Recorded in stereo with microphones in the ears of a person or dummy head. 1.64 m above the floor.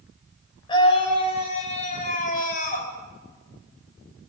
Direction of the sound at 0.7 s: 30° left (ahead or behind).